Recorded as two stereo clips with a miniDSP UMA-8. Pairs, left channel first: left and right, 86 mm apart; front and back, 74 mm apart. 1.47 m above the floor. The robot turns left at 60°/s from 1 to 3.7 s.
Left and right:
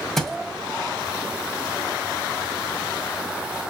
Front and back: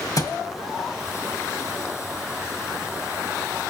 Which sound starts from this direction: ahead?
A thud, at 0.2 s.